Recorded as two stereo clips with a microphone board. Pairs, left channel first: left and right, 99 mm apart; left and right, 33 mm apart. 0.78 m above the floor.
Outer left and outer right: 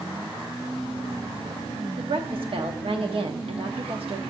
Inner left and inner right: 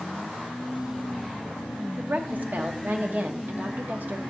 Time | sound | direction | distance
2.0 | a woman speaking | 65° right (ahead or behind) | 1.0 m